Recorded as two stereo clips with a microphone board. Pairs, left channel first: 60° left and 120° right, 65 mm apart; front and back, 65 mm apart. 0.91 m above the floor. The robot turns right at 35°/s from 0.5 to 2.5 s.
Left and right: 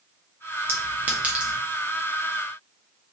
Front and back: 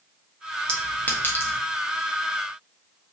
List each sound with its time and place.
0.7 s a clink: 70° right, 0.6 m; by 1.6 s 40° right, 0.6 m